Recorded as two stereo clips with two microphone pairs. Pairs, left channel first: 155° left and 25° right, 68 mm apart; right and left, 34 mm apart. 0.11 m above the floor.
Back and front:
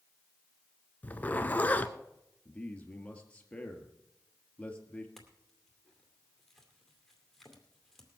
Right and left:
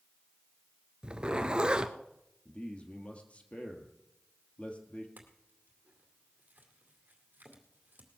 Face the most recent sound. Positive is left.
turn(degrees=70)